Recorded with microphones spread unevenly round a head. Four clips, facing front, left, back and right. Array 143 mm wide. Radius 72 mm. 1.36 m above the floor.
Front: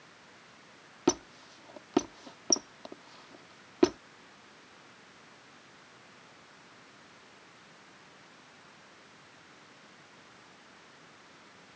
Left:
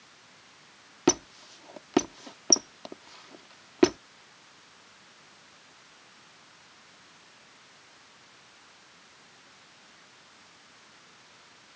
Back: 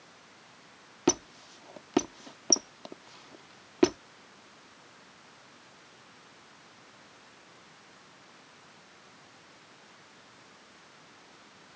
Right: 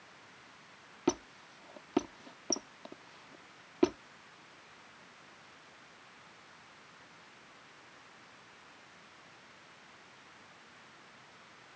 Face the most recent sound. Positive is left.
turn(degrees=100)